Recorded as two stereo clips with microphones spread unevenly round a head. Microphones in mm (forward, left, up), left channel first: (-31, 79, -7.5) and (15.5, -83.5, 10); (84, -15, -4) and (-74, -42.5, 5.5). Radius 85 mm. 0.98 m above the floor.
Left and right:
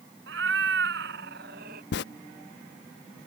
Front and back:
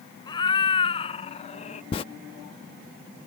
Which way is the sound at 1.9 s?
75° left.